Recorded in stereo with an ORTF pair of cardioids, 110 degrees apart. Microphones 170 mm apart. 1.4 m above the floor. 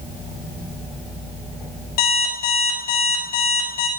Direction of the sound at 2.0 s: 65° left.